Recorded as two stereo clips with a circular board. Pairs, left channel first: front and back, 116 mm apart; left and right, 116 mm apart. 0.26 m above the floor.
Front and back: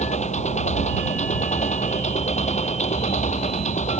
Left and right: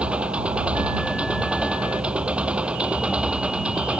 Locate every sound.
0.0 s an engine running: 10° right